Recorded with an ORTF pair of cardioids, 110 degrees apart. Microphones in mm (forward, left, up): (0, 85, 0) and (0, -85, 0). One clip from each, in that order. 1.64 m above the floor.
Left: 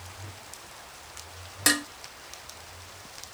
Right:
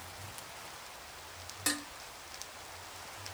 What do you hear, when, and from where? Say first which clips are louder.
1.7 s dishes clattering: left 11 dB; 60° left